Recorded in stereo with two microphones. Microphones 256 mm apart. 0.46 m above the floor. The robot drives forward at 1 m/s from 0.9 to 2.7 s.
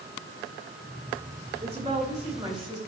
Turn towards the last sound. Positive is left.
turn(degrees=-15)  # may be behind; listen again after turning